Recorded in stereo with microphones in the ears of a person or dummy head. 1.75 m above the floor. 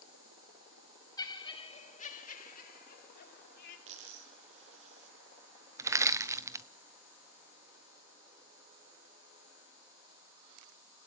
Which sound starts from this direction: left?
Laughter, at 1.2 s.